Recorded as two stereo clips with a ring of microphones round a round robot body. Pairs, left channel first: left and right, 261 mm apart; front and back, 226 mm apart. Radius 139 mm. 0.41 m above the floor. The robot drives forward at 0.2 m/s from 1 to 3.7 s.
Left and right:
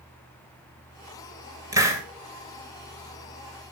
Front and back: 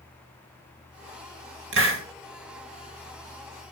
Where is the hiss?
165° right, 2.5 m.